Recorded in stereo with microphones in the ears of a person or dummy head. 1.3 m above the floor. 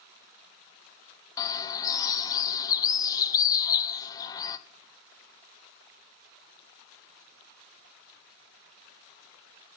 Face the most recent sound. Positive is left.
turn(degrees=20)  # may be behind; listen again after turning